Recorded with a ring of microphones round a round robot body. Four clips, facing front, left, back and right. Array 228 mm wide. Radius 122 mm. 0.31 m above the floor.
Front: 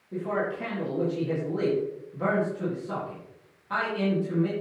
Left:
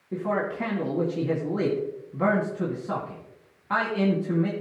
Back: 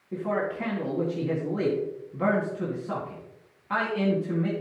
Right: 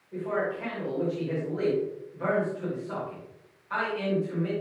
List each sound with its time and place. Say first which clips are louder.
0.1 s a man speaking: left 2 dB, back 1 dB; 110° left, 2.5 m